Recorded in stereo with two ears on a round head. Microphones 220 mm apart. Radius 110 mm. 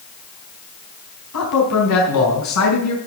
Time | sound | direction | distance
1.3 | a man speaking | 75° left (ahead or behind) | 4 m